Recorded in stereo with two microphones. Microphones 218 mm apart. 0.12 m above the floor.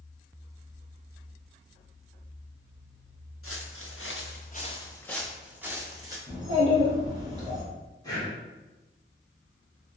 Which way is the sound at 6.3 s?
20° right (ahead or behind).